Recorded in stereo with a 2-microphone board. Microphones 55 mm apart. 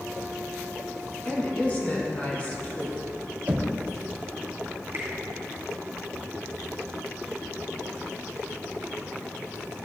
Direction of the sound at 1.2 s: 25° left (ahead or behind).